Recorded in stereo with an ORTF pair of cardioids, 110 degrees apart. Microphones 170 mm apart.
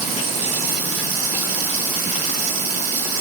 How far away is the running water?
About 3 m.